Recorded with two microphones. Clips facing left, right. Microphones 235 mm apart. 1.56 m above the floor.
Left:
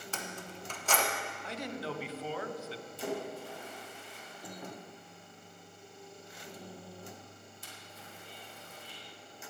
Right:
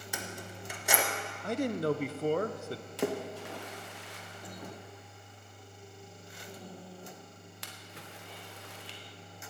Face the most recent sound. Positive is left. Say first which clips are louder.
# right 4 dB
turn(degrees=-80)